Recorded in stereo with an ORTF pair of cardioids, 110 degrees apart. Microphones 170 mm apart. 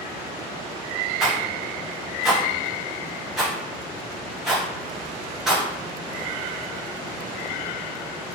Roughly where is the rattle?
Ahead.